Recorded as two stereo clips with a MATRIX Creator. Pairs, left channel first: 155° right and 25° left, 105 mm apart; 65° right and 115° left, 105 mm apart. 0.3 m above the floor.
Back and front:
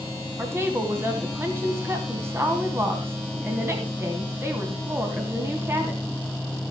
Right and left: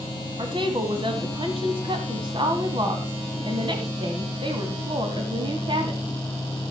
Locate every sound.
0.4 s a woman speaking: 85° left, 2.0 m